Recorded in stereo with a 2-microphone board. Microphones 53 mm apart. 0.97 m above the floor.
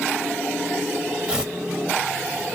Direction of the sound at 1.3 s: 15° right (ahead or behind).